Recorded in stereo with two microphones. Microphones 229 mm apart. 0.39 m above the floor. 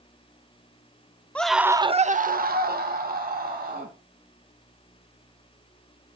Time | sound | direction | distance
1.4 | a scream | 5° left (ahead or behind) | 1.0 m